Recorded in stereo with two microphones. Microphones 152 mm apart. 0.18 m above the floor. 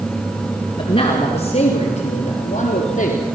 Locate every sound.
0.8 s a man speaking: 35° left (ahead or behind), 3.5 m; by 3.2 s 60° left (ahead or behind), 4 m